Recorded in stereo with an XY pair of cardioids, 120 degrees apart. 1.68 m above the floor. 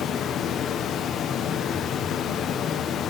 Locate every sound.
0.0 s running water: 60° left, 0.9 m